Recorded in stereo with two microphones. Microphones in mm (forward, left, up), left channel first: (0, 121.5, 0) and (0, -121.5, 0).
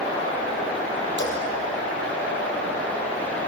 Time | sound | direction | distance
1.2 | a splash | 45° left (ahead or behind) | 6 m